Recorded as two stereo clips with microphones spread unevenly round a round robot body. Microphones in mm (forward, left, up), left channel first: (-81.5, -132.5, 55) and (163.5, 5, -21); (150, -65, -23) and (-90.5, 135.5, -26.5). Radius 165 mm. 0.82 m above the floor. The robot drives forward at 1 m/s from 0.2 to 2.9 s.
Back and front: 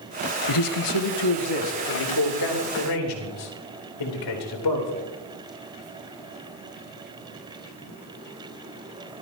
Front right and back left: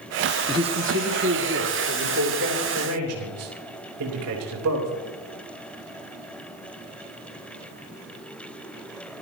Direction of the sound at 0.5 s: 140° right.